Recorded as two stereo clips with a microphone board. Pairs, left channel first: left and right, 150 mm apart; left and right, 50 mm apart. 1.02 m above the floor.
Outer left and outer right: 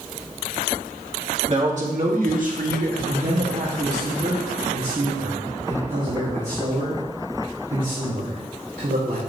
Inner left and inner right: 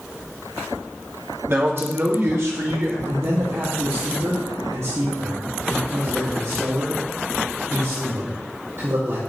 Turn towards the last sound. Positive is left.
turn(degrees=-55)  # may be behind; listen again after turning